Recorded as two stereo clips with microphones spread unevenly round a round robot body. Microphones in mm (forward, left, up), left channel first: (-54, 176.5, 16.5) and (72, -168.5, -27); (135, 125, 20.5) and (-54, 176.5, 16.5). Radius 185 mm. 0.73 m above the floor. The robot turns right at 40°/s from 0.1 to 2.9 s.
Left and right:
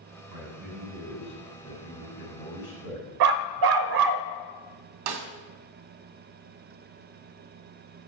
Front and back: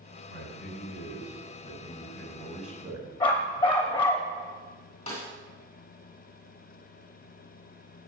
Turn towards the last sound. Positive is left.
turn(degrees=-80)